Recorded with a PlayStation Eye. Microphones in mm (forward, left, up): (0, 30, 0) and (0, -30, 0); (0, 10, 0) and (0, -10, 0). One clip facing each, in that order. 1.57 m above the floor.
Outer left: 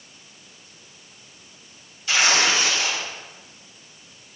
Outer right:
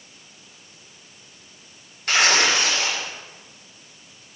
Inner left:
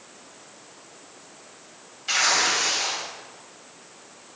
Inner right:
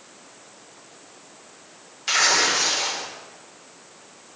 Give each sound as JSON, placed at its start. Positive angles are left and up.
{"t": 2.1, "sound": "tearing paper", "side_deg": -60, "distance_m": 3.0}